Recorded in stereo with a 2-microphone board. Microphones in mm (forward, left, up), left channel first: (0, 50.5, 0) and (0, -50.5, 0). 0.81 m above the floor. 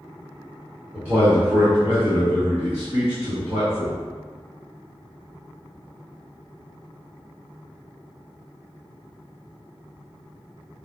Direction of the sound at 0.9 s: 15° right (ahead or behind).